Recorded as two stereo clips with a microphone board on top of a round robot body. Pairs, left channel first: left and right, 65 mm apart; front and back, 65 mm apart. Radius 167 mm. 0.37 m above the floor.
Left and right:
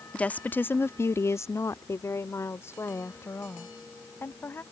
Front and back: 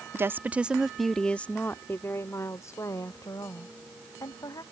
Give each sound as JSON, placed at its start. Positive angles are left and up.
{"t": 0.1, "sound": "a woman speaking", "azimuth_deg": 155}